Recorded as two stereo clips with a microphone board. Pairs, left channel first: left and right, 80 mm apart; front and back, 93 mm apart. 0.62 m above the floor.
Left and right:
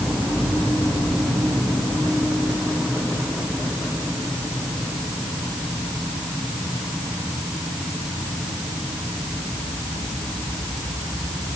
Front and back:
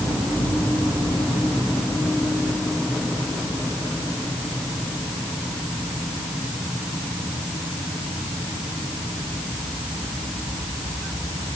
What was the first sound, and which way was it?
Only background noise.